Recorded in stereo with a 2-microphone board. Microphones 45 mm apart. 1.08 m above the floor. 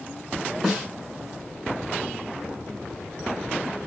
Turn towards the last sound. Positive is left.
turn(degrees=-5)  # may be behind; listen again after turning